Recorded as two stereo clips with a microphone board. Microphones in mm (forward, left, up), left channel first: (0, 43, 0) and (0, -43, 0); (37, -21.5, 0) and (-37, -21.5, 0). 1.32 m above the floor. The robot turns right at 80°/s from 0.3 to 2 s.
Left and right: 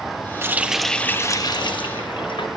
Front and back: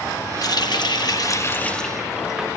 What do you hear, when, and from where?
0.4 s a running tap: 30° right, 1.1 m; by 2.5 s 95° left, 1.1 m